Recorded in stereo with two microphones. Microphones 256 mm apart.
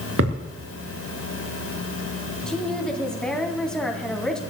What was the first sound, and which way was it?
A thud, 60° right (ahead or behind).